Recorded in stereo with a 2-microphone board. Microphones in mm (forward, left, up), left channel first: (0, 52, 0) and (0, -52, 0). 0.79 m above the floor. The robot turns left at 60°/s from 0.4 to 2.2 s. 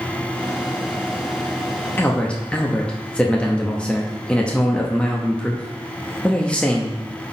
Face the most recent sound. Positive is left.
turn(degrees=10)  # may be behind; listen again after turning